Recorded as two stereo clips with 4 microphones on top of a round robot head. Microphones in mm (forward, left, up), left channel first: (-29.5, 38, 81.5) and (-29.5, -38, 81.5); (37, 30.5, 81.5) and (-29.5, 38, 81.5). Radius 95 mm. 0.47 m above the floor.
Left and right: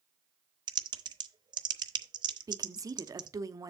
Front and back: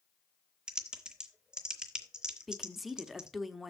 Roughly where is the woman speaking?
Right.